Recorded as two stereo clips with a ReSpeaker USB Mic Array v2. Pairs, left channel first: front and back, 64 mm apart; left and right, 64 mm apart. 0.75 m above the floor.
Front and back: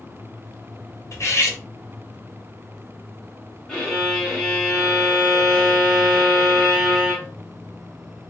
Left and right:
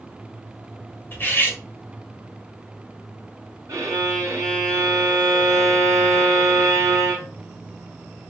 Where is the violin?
80° right, 1.4 m.